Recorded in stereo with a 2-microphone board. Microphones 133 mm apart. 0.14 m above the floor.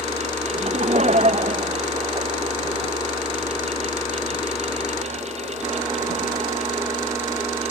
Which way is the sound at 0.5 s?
55° right (ahead or behind).